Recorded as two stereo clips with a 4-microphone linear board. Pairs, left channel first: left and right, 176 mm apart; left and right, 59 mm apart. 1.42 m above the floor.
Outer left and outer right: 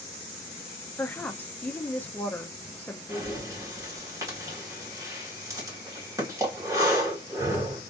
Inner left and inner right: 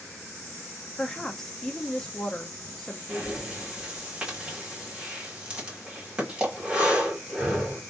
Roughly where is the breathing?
Centre.